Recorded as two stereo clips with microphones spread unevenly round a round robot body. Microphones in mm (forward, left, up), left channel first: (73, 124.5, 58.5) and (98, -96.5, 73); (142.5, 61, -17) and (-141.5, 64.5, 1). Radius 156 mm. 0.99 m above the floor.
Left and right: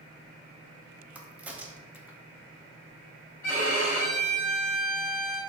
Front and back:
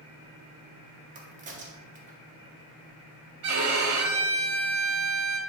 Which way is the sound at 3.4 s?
Straight behind.